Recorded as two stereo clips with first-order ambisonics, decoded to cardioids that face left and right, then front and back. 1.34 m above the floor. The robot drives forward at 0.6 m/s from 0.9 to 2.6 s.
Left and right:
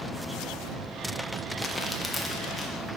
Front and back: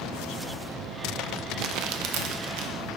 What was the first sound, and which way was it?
Crumpling, 175° left.